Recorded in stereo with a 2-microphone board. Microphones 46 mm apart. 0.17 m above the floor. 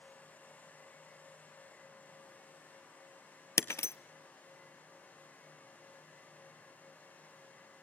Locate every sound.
3.6 s breaking glass: 85° left, 0.7 m